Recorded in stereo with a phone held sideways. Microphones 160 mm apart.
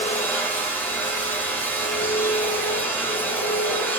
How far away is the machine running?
About 6.5 m.